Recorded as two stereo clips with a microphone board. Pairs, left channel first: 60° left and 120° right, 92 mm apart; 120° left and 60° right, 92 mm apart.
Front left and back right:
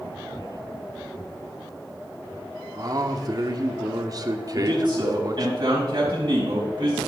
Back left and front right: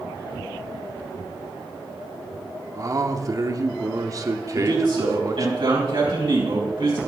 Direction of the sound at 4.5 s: 80° right.